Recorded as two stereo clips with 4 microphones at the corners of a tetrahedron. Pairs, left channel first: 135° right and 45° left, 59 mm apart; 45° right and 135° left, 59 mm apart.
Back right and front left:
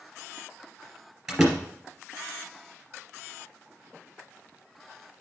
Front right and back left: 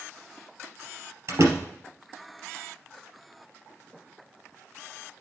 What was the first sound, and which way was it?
A door slam, 125° left.